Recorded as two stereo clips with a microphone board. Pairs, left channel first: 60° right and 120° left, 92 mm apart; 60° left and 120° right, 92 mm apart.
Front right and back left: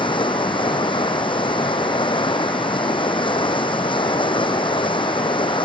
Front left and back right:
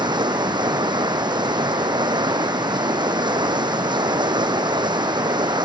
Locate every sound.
0.0 s running water: 85° right